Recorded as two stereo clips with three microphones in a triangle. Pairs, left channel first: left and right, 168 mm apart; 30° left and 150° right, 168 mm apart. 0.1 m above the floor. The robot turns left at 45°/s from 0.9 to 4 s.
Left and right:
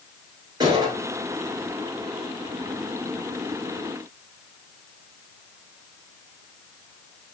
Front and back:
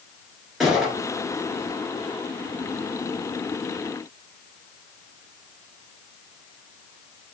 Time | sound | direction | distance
0.6 | a gunshot | 65° right | 1.5 m